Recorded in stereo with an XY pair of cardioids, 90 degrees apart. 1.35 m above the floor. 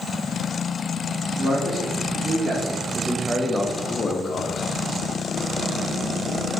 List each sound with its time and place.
1.4 s a man speaking: 55° right, 2.5 m; by 4.6 s 65° left, 1.4 m